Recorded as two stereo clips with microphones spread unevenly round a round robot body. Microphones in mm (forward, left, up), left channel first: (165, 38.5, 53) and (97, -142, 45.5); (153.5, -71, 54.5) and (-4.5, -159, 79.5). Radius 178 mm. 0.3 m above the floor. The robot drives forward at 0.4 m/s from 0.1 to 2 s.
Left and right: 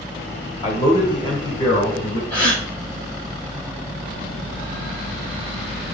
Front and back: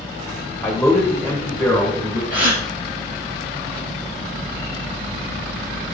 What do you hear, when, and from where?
0.6 s a man speaking: 105° left, 1.6 m; by 2.2 s 135° left, 1.8 m
2.3 s a gasp: 170° left, 2.0 m